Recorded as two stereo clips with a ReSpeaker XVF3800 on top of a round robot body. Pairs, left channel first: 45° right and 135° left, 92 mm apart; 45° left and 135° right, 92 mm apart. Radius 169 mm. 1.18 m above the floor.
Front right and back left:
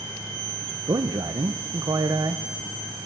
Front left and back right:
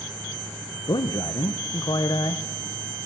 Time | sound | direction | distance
0.9 | a man speaking | 85° left | 0.8 m